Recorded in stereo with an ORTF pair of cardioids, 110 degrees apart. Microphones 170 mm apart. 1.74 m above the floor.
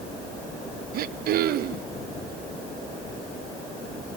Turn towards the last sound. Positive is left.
turn(degrees=-65)